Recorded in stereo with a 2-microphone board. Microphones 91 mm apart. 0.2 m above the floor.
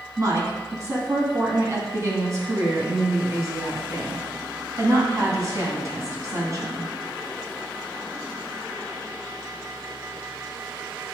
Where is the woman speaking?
35° right (ahead or behind), 1.9 m.